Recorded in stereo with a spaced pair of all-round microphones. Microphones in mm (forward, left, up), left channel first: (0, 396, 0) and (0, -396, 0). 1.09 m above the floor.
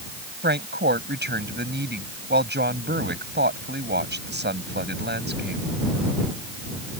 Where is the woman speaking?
15° right (ahead or behind).